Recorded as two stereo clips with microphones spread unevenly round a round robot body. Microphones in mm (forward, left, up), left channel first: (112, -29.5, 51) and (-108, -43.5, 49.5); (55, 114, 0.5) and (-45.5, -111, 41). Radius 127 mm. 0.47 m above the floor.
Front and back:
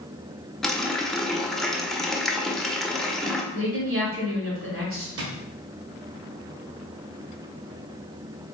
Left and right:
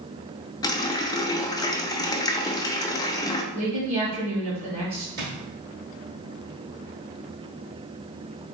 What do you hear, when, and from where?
0.6 s a running tap: 90° left, 0.5 m
3.5 s a woman speaking: straight behind, 1.8 m
5.2 s a drawer: 170° right, 1.3 m